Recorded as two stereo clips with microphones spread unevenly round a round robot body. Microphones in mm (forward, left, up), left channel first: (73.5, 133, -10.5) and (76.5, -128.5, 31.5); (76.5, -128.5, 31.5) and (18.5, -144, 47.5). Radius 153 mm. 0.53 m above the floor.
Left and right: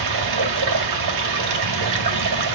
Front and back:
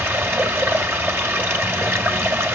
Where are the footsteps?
I don't hear footsteps.